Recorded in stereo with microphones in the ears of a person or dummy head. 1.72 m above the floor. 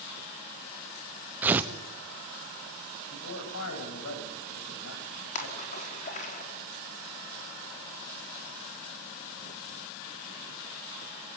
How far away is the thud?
No thud in this recording.